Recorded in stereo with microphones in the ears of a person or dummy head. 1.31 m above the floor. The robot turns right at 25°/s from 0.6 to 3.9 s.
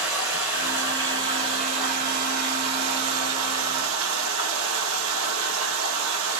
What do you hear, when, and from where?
0.0 s running water: 170° right, 1.4 m; by 6.4 s 85° right, 1.4 m